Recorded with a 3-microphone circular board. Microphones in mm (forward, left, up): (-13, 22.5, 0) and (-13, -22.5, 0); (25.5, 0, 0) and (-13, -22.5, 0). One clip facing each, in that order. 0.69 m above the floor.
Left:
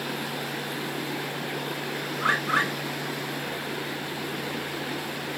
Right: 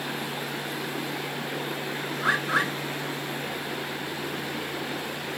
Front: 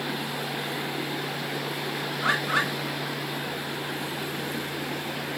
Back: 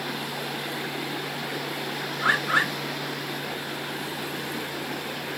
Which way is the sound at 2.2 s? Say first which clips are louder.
Left 1 dB, back 3 dB; 135° left.